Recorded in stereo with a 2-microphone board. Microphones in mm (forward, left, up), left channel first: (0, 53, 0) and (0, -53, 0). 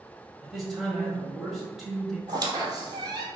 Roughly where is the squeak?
Right.